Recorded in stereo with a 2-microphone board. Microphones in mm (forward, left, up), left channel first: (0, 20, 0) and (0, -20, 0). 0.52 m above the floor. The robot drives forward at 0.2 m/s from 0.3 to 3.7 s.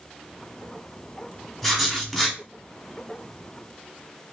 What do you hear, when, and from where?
1.6 s writing: 5° right (ahead or behind), 1.3 m